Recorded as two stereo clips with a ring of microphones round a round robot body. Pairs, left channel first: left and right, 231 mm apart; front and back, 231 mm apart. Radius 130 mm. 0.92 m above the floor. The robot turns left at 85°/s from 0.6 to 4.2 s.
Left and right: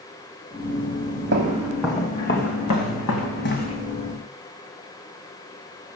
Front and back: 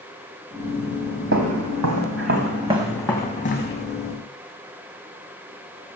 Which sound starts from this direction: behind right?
Footsteps, at 1.3 s.